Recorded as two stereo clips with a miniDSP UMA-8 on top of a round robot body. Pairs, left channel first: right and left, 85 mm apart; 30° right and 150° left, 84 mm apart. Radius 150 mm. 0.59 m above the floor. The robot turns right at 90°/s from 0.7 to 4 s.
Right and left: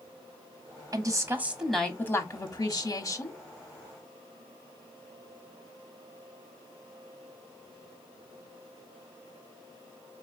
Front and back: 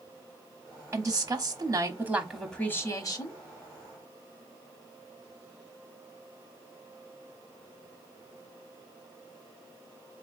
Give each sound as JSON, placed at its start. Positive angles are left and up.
{"t": 0.9, "sound": "a woman speaking", "azimuth_deg": 105, "distance_m": 1.1}